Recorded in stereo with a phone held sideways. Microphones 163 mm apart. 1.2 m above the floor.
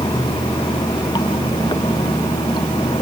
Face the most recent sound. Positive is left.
turn(degrees=25)  # may be behind; listen again after turning